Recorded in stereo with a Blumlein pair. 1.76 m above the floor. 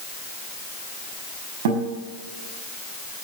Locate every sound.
1.6 s a guitar: 50° right, 5.5 m